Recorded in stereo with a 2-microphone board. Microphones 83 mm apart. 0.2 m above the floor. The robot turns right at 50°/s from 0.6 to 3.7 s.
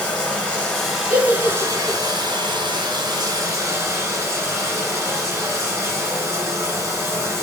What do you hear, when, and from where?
0.0 s running water: 165° left, 1.0 m; by 7.4 s 40° right, 1.0 m
1.1 s a giggle: 35° right (ahead or behind), 1.0 m; by 2.0 s 10° right (ahead or behind), 1.0 m